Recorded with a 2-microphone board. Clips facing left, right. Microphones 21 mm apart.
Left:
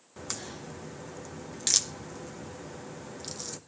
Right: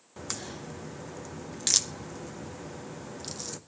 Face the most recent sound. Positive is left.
turn(degrees=0)  # may be behind; listen again after turning